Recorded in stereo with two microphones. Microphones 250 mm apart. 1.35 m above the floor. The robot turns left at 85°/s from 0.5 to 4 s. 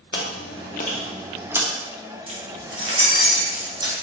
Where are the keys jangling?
20° right (ahead or behind), 0.9 m; by 3.9 s 10° right (ahead or behind), 0.9 m.